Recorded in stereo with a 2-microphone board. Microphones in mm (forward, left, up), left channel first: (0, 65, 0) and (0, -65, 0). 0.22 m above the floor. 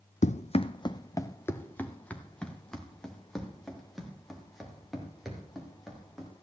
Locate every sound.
0.2 s running footsteps: 70° left (ahead or behind), 0.6 m; by 6.3 s centre (ahead or behind), 5.5 m